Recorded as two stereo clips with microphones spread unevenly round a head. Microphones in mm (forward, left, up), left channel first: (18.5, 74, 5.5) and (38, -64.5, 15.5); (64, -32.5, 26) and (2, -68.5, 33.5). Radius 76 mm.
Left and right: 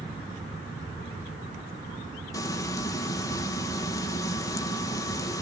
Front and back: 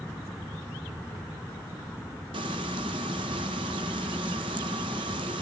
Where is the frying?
170° left, 1.3 m.